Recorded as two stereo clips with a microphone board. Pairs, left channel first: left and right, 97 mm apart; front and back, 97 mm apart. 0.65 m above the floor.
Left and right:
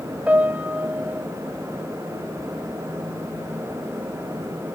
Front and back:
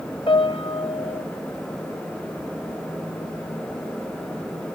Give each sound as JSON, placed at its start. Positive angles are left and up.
{"t": 0.3, "sound": "a piano", "azimuth_deg": -15, "distance_m": 0.6}